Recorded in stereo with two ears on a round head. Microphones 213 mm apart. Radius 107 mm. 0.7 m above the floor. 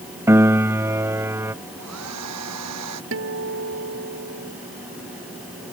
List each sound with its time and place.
0.3 s a piano: 10° right (ahead or behind)
1.8 s a hair dryer: 85° right
3.1 s a guitar: 60° right (ahead or behind)